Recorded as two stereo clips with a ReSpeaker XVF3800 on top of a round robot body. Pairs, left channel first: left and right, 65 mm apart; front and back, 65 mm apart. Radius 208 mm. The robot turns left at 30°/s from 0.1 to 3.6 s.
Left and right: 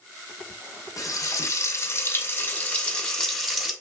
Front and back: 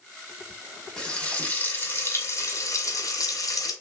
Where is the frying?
80° left, 2 m; by 3.7 s straight ahead, 2 m.